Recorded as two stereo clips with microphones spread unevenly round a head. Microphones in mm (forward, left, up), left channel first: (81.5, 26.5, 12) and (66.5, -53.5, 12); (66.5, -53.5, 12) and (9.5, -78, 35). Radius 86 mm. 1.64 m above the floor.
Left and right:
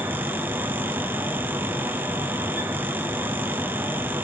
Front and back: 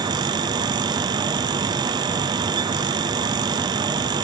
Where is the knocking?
I don't hear knocking.